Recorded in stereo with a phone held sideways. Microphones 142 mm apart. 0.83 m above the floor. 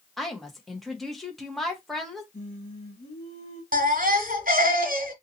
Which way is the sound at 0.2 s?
Centre (ahead or behind).